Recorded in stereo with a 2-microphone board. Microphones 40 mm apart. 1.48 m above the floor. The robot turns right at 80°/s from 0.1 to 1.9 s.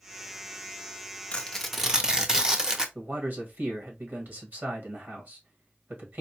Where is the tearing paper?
145° left, 0.5 m; by 2.9 s 165° right, 0.5 m.